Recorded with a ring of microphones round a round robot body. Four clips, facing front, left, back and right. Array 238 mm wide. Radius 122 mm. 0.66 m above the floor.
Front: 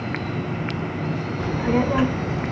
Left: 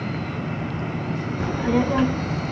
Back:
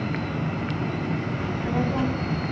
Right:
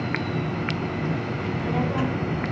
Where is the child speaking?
50° left, 0.7 m; by 2.5 s 25° left, 2 m.